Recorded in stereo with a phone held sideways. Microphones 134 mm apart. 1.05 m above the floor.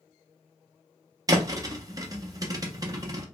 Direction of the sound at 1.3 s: 25° right (ahead or behind).